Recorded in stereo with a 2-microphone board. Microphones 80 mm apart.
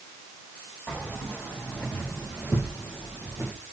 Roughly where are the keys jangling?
Left.